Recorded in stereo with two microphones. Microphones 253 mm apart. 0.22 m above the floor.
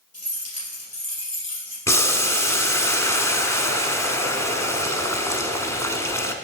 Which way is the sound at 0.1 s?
75° left (ahead or behind).